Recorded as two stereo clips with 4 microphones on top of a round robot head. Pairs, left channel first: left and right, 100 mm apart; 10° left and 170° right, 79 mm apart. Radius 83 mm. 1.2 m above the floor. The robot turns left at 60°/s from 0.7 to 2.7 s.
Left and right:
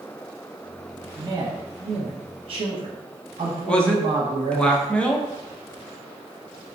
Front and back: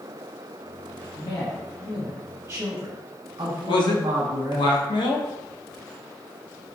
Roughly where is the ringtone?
I don't hear a ringtone.